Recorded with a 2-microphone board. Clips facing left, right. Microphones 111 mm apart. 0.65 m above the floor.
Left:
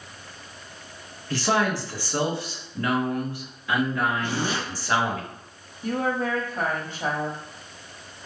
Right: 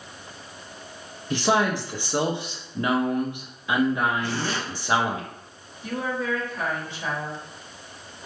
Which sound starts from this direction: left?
A woman speaking, at 5.8 s.